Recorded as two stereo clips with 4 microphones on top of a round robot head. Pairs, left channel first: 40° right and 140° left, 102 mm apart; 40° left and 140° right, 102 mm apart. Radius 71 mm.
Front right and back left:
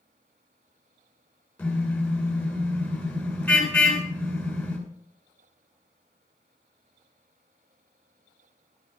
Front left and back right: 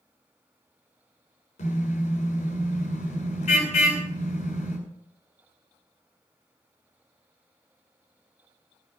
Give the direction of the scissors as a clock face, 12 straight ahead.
No scissors in this recording.